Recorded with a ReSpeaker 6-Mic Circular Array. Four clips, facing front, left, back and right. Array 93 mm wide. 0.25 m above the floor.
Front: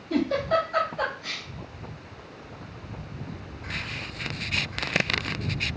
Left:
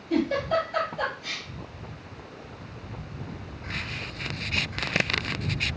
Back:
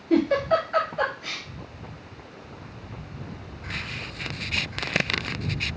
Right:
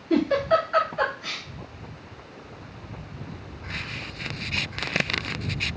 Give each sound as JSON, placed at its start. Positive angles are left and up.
{"t": 0.1, "sound": "a giggle", "azimuth_deg": -115, "distance_m": 1.9}